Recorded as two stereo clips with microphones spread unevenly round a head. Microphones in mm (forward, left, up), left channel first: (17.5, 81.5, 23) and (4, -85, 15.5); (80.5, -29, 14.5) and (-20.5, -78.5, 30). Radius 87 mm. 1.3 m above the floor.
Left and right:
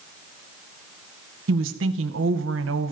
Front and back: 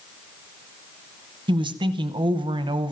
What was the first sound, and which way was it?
A woman speaking, 105° right.